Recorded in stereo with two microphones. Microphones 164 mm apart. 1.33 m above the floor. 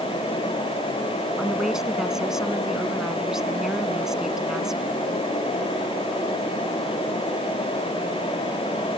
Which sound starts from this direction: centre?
A woman speaking, at 1.4 s.